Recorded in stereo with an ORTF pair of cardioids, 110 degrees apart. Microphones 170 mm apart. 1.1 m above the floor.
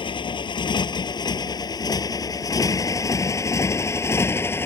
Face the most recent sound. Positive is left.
turn(degrees=15)